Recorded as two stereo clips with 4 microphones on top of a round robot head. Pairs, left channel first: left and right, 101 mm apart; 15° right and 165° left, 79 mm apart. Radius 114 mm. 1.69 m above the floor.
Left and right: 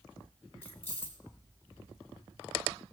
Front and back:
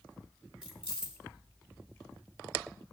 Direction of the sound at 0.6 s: 95° left.